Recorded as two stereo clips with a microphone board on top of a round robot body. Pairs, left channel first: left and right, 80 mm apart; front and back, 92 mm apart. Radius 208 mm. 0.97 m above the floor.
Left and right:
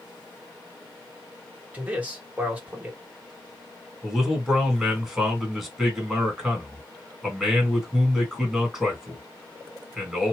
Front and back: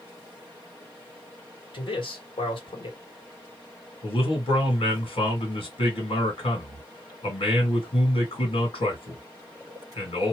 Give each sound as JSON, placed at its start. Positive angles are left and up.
{"t": 1.7, "sound": "a man speaking", "azimuth_deg": -15, "distance_m": 1.8}
{"t": 4.0, "sound": "a man speaking", "azimuth_deg": -5, "distance_m": 2.0}